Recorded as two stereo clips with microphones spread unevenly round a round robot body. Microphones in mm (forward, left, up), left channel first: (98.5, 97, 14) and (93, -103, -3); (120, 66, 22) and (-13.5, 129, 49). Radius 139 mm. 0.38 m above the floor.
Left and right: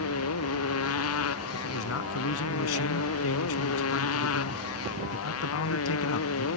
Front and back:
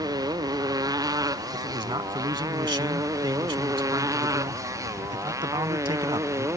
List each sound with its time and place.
0.0 s a motorcycle: 90° left; by 6.6 s 85° left
1.5 s a man speaking: 90° left